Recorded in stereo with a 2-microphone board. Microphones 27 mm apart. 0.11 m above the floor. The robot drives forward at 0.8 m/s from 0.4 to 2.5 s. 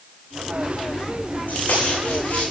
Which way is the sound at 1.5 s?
75° left (ahead or behind).